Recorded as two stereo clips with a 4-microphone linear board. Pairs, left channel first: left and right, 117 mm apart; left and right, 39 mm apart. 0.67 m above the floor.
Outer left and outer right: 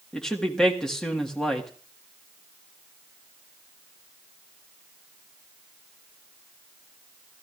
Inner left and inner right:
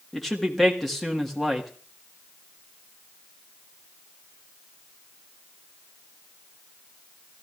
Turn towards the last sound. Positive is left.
turn(degrees=5)  # may be behind; listen again after turning